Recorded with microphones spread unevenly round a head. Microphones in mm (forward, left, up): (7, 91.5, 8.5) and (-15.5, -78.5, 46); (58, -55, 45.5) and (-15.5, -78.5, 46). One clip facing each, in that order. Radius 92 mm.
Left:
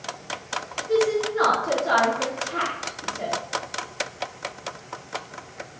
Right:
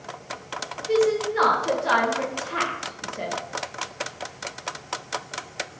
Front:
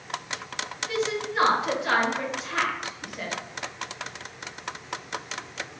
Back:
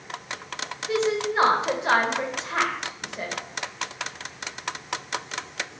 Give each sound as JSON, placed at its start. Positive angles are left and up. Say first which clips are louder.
{"t": 0.9, "sound": "a woman speaking", "louder": "right 1 dB, back 5 dB", "azimuth_deg": -100, "distance_m": 1.4}